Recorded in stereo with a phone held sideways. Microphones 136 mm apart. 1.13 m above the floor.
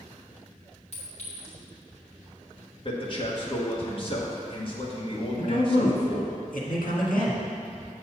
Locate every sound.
0.9 s a clink: 50° left (ahead or behind), 2 m
2.9 s a man speaking: 40° left (ahead or behind), 1.4 m
5.4 s a man speaking: 85° left, 1.7 m